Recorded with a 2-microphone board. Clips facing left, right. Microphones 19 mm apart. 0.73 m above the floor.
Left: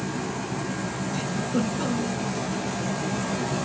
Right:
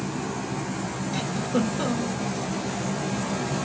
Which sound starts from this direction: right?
A giggle, at 1.1 s.